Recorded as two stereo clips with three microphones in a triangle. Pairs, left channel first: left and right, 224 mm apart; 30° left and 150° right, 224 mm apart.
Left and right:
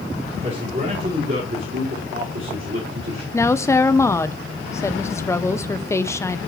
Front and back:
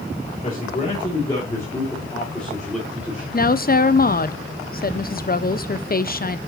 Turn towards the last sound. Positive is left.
turn(degrees=20)